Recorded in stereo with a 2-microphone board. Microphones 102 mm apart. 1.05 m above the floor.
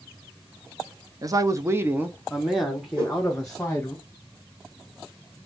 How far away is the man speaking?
About 0.6 m.